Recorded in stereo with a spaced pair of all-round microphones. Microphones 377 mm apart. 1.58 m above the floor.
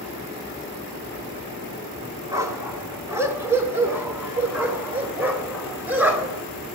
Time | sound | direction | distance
2.3 | a dog barking | 10° right (ahead or behind) | 1.7 m